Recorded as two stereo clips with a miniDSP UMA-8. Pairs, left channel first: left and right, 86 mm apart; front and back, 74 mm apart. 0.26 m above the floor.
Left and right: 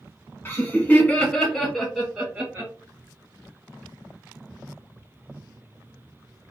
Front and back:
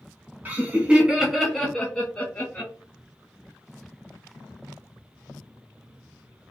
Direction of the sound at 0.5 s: 130° left.